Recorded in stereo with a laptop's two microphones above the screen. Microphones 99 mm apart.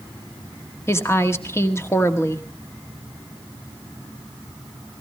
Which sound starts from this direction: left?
A woman speaking, at 0.9 s.